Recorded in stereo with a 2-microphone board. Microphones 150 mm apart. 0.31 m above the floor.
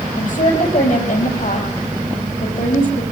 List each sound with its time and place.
0.2 s a woman speaking: 60° left (ahead or behind), 9.5 m